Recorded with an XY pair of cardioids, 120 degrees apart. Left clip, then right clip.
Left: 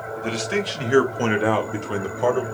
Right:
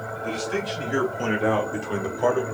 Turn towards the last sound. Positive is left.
turn(degrees=0)